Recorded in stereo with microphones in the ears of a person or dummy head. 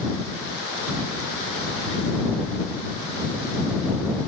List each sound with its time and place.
Only background noise.